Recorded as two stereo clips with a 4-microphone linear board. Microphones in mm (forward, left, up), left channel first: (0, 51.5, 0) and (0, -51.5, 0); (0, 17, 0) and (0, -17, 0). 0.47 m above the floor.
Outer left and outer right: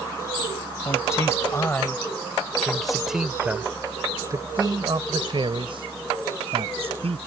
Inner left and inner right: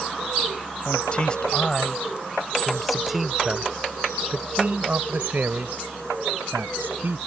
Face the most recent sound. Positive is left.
turn(degrees=-70)  # may be behind; listen again after turning